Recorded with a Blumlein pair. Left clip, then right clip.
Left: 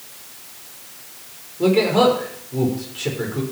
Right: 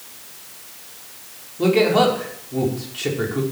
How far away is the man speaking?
About 4.5 m.